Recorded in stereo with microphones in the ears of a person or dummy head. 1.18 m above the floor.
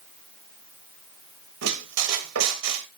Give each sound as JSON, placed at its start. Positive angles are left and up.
{"t": 1.6, "sound": "a squeak", "side_deg": -90, "distance_m": 1.3}